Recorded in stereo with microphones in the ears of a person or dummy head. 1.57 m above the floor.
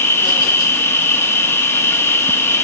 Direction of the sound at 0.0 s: 10° left (ahead or behind).